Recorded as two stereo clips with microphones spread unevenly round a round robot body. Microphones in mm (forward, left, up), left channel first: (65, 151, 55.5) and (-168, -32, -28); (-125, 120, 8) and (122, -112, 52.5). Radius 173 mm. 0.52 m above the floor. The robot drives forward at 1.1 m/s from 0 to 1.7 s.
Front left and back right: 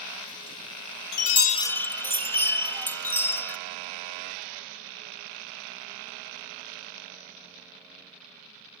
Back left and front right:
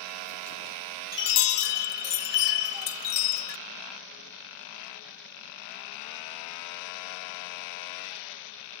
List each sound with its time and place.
1.1 s a chime: 70° left, 0.7 m; by 3.6 s 120° left, 0.8 m